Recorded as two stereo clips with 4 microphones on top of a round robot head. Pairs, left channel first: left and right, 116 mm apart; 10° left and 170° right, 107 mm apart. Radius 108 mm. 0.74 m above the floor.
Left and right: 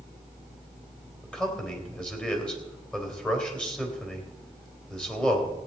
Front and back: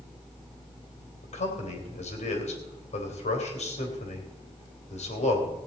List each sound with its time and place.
1.2 s a man speaking: 10° left, 3 m